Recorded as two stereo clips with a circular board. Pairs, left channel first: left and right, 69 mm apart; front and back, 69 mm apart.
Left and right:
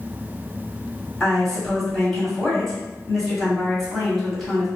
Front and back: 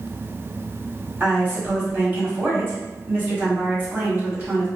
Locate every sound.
1.2 s a woman speaking: 175° left, 1.3 m